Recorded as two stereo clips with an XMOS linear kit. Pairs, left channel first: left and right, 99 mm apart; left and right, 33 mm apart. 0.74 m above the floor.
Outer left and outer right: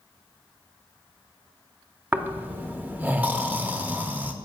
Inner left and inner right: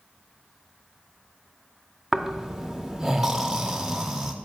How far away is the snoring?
About 0.5 m.